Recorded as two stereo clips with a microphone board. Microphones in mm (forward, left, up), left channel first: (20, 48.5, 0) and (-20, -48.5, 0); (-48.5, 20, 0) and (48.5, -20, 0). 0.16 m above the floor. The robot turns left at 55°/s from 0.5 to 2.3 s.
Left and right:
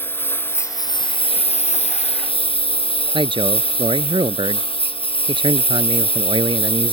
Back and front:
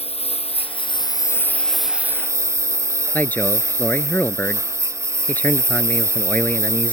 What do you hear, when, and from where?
0.0 s a lawn mower: 140° left; by 6.9 s 40° left
3.1 s a man speaking: 130° right